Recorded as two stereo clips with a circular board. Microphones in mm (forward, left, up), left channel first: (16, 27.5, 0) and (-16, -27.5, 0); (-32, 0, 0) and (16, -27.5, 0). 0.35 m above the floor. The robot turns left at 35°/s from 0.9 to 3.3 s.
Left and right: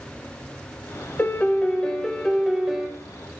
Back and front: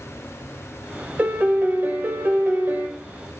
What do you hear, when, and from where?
1.2 s a piano: 15° left, 0.7 m; by 2.9 s 45° right, 0.7 m